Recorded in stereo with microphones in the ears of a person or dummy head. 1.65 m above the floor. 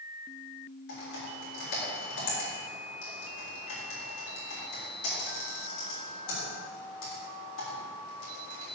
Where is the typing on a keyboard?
85° left, 3.5 m.